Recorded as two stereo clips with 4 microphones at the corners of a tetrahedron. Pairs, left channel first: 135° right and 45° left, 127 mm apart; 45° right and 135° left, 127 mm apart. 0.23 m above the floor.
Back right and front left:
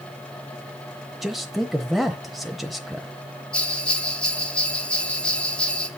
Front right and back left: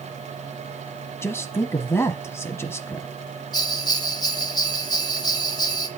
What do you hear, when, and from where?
1.2 s a man speaking: 45° right, 1.0 m
3.5 s a bell: 60° right, 1.2 m